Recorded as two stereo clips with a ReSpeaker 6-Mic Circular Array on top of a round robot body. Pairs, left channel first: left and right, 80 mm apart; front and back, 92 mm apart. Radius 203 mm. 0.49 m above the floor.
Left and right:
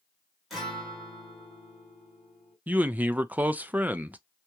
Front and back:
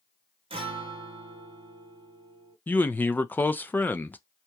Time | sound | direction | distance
0.5 | a guitar | 175° right | 0.9 m
2.7 | a man speaking | 45° right | 0.7 m